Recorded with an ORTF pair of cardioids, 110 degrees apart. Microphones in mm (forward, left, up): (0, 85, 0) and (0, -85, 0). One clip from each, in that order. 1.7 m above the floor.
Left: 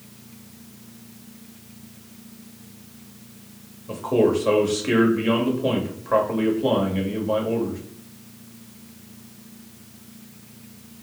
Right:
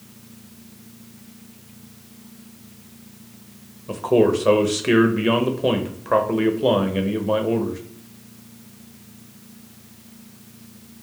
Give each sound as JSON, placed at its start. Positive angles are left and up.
{"t": 3.9, "sound": "a man speaking", "azimuth_deg": -25, "distance_m": 0.7}